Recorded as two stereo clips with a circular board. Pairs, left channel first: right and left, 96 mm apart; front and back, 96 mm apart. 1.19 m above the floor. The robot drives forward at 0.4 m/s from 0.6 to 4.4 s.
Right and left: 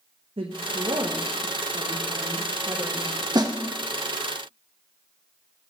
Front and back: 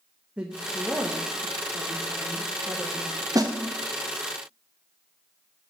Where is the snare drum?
130° left, 0.9 m; by 3.6 s 135° left, 0.9 m.